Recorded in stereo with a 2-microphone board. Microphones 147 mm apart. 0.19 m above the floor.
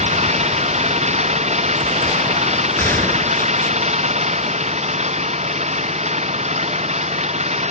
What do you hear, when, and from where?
0.0 s an engine running: 50° right (ahead or behind)
2.8 s a gunshot: 15° left (ahead or behind)